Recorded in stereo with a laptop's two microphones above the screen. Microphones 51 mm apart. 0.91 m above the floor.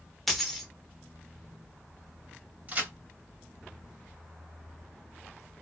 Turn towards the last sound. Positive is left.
turn(degrees=-30)  # may be behind; listen again after turning